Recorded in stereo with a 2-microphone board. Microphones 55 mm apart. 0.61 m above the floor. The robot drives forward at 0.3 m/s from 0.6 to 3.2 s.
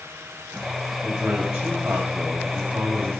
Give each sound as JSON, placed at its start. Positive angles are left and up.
{"t": 1.0, "sound": "a man speaking", "side_deg": -35, "distance_m": 3.5}